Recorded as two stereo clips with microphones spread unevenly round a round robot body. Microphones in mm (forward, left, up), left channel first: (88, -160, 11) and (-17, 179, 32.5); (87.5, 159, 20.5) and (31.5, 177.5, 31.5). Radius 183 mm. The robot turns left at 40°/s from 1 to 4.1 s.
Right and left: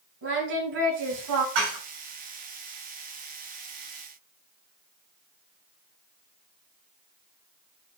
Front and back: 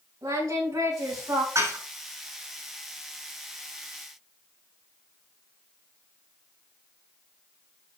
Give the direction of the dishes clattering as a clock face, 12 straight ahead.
7 o'clock.